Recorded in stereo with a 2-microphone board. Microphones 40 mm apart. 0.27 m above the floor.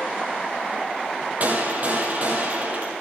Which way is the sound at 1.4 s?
45° right (ahead or behind).